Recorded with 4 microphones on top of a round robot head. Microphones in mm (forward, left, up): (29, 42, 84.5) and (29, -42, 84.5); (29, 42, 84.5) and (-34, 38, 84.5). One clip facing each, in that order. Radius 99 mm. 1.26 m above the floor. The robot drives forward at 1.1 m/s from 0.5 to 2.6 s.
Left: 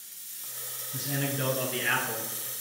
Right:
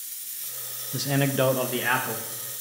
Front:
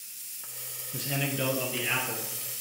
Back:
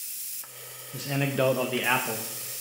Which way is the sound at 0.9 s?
80° right.